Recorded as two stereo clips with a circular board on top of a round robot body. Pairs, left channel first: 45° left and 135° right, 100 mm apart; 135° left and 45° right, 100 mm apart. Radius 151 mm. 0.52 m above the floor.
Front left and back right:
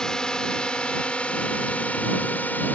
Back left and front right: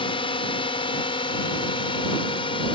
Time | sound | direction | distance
0.0 | a drone | 125° left | ?